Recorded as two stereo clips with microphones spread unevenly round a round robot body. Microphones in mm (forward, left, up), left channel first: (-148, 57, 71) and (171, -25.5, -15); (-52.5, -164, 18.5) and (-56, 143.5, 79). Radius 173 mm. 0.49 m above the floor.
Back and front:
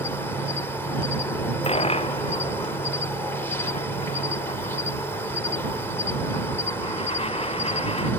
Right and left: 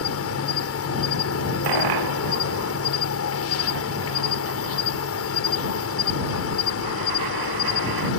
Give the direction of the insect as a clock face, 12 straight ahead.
3 o'clock.